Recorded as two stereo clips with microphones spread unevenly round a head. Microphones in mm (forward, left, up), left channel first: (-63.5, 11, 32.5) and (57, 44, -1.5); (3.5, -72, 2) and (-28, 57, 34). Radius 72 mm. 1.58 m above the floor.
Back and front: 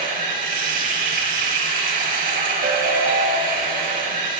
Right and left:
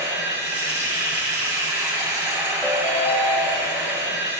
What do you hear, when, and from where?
0.0 s running water: 20° left, 10 m
2.6 s a ringtone: 10° left, 5 m